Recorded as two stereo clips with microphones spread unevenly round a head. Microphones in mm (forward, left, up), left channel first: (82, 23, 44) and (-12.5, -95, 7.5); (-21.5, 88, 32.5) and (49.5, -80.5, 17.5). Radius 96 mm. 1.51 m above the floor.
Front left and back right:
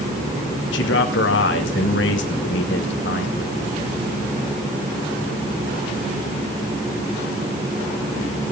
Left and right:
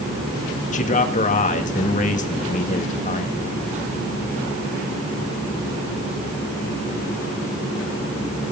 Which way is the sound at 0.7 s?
60° left.